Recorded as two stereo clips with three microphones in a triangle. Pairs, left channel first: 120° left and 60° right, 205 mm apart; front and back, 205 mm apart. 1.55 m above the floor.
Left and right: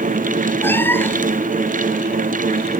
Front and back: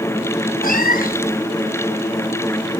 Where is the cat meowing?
40° left.